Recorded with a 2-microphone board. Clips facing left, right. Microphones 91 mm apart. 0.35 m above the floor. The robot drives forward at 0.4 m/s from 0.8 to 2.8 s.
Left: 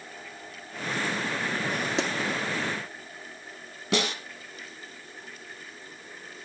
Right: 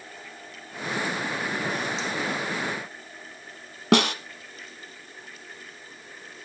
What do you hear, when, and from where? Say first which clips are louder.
2.0 s a pop: left 3 dB; 75° left (ahead or behind), 1.9 m
3.9 s a snare drum: right 7 dB; 65° right (ahead or behind), 1.5 m